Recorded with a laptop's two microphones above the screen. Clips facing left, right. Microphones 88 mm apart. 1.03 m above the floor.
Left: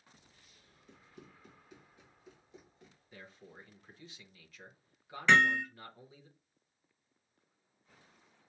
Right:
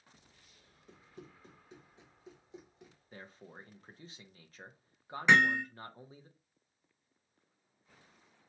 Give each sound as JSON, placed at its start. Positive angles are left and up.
{"t": 0.9, "sound": "running footsteps", "side_deg": -35, "distance_m": 2.5}
{"t": 3.1, "sound": "a man speaking", "side_deg": -35, "distance_m": 0.8}
{"t": 5.3, "sound": "hammering", "side_deg": -15, "distance_m": 1.1}